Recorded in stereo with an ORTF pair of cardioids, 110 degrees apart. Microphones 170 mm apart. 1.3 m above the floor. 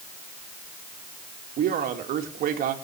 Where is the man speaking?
60° right, 2.5 m.